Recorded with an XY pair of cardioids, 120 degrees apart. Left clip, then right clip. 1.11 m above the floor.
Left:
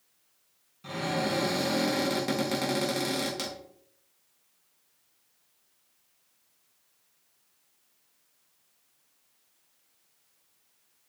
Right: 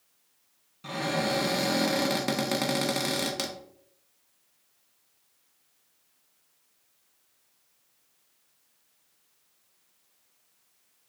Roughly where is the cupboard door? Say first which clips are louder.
Right 2 dB; ahead right.